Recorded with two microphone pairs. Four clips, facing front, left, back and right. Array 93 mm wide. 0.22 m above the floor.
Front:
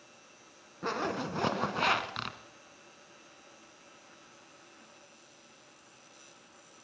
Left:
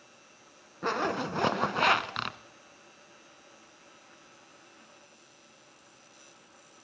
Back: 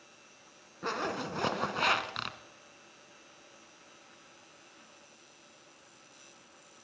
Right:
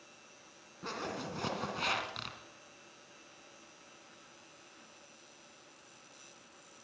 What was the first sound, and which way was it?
A zipper, 100° left.